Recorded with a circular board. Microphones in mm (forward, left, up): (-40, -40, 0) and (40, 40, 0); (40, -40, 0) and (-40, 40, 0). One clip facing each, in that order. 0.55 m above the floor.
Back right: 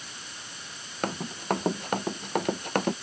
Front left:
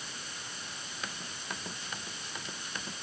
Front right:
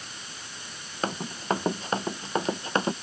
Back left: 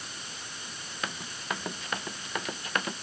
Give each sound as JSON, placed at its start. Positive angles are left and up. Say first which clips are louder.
{"t": 1.0, "sound": "running footsteps", "louder": "back right 14 dB, front right 8 dB", "azimuth_deg": -100}